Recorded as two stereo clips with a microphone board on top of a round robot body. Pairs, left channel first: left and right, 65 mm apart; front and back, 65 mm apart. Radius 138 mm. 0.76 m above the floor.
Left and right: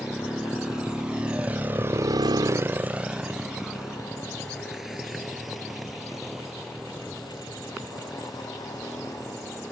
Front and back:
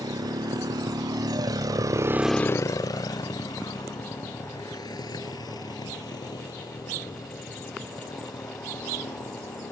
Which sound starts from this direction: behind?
A motorcycle, at 0.0 s.